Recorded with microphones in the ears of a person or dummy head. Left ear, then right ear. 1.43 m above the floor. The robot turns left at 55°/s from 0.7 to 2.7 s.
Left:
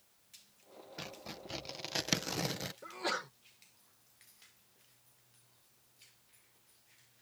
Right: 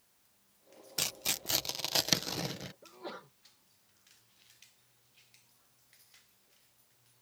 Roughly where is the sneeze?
Left.